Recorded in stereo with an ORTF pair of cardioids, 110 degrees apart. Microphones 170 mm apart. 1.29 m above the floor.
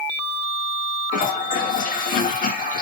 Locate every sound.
1.1 s a toilet flushing: 55° left, 2 m